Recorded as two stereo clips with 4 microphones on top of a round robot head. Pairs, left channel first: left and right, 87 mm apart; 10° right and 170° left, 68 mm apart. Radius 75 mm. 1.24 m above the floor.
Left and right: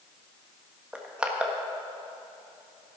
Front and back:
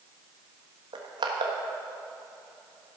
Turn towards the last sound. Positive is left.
turn(degrees=-170)